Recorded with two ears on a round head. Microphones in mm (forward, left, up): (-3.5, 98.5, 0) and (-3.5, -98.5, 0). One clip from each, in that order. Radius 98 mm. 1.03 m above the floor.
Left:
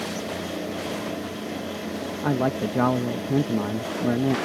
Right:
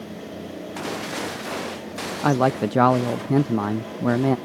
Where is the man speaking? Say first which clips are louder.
Right 5 dB; 35° right (ahead or behind).